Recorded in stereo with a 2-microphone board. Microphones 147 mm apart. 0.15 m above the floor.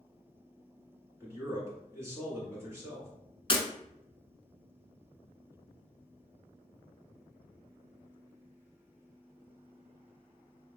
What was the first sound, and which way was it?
A man speaking, 20° right (ahead or behind).